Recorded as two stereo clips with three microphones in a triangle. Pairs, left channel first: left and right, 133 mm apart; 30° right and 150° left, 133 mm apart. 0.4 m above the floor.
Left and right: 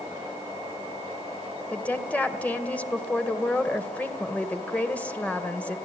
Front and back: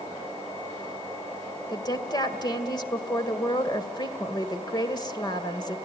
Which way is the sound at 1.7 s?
15° left.